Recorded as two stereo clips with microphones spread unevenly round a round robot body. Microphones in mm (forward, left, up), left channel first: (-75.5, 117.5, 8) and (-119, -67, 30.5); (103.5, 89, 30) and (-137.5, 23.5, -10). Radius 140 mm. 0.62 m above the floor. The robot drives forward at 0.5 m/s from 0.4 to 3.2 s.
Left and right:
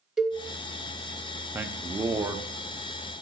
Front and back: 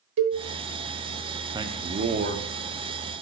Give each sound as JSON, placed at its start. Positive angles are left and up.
{"t": 0.2, "sound": "a cowbell", "azimuth_deg": 170, "distance_m": 1.0}
{"t": 1.5, "sound": "a man speaking", "azimuth_deg": 175, "distance_m": 0.6}